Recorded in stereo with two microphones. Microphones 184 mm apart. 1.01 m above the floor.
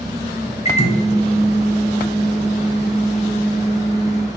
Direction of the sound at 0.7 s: 35° left (ahead or behind).